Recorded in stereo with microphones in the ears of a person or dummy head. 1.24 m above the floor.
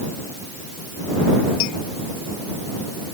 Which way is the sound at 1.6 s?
75° left (ahead or behind).